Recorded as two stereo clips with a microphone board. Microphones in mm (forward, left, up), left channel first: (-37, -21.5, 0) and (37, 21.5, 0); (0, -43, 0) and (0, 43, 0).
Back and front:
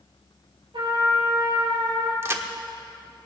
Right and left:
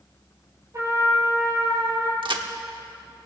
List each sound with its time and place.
0.7 s a trumpet: 35° left, 3.5 m
2.2 s a crack: 85° left, 1.0 m